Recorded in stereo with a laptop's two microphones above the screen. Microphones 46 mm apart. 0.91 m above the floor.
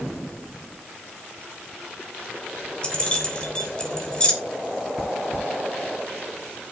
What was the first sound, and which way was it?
Keys jangling, 25° left (ahead or behind).